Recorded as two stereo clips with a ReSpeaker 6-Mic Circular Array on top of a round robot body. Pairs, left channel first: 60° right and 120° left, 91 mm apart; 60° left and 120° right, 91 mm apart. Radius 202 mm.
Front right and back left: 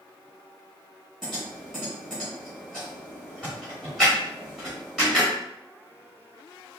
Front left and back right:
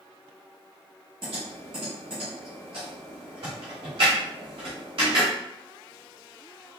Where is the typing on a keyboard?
155° right, 0.8 m.